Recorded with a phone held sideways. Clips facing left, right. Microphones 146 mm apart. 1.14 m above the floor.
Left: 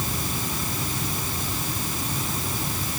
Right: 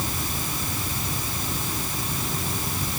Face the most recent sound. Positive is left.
No sound to turn to.